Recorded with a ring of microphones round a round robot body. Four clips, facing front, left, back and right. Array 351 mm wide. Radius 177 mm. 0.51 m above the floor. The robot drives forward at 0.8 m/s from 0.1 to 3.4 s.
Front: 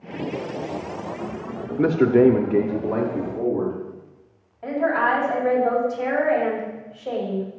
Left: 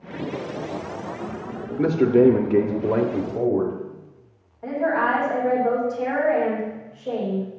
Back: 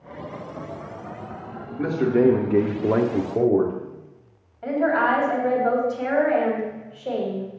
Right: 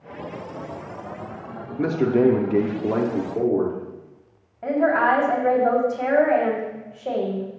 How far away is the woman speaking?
About 3 m.